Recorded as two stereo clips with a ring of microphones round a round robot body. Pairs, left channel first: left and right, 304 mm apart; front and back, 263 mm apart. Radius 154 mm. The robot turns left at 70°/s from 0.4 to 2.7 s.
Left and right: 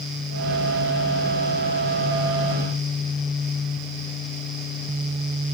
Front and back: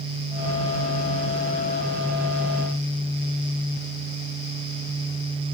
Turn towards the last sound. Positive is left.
No sound to turn to.